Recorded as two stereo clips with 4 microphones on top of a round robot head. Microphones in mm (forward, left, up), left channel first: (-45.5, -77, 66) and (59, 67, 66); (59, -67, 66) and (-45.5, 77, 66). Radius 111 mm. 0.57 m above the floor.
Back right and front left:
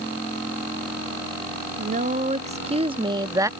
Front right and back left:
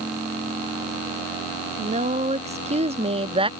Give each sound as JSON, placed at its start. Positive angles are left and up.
{"t": 1.8, "sound": "a woman speaking", "azimuth_deg": 85}